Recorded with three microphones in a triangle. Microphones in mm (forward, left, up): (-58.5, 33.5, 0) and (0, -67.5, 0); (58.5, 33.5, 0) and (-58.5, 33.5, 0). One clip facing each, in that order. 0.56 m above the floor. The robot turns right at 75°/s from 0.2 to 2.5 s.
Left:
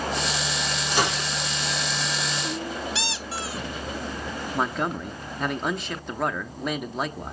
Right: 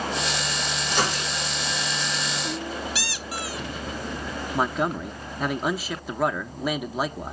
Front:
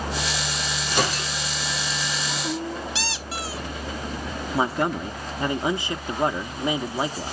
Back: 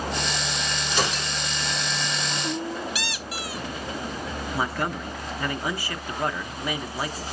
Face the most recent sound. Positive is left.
turn(degrees=20)